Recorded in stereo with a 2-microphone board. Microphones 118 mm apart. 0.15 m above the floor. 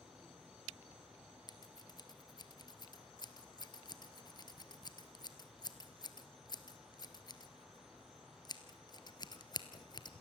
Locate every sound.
1.5 s scissors: 40° left (ahead or behind), 1.5 m